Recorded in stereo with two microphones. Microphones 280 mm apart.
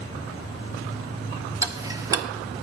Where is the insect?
30° left (ahead or behind), 9 m.